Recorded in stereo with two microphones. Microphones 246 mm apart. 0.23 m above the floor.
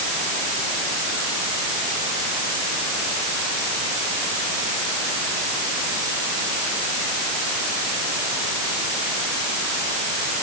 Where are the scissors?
No scissors in this recording.